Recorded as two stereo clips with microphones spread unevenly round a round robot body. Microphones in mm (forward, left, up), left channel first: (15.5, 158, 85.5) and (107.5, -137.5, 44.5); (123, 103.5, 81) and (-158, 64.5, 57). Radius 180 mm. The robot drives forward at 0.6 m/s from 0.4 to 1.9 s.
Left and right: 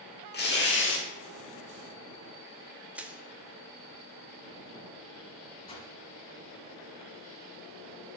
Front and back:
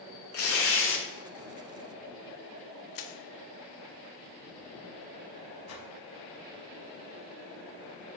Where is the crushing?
15° left, 0.7 m.